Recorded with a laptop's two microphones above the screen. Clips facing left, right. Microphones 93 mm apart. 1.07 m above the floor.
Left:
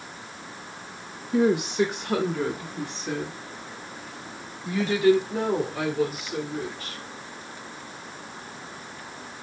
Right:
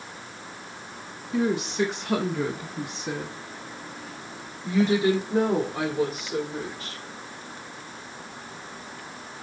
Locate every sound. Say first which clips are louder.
1.3 s a woman speaking: left 3 dB; 25° left (ahead or behind), 1.0 m; by 7.0 s 35° right (ahead or behind), 4 m